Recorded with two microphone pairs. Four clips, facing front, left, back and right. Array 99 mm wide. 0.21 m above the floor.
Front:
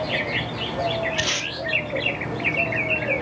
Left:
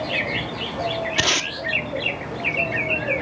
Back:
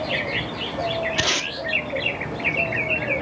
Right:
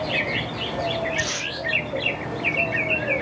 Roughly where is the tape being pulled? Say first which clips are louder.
Left 4 dB, back 2 dB; left.